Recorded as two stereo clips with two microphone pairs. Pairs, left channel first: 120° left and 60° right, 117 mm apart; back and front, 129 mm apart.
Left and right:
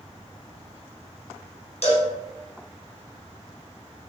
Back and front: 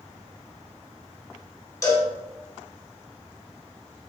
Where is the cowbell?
120° left, 1.0 m.